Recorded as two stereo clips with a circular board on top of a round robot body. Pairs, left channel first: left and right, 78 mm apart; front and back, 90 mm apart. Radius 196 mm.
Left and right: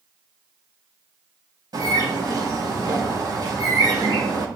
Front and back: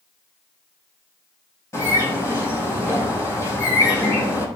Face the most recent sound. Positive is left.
turn(degrees=-55)